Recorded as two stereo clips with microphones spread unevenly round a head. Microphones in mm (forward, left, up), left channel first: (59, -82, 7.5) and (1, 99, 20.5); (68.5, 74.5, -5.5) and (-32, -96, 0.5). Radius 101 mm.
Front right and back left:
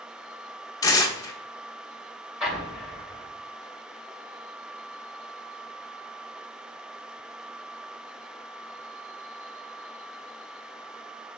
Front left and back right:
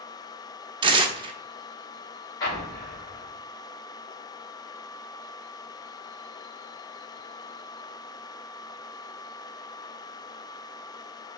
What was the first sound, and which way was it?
Tearing paper, 130° right.